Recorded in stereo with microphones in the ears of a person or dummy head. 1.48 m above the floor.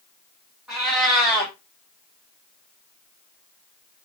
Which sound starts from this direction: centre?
A cat meowing, at 0.7 s.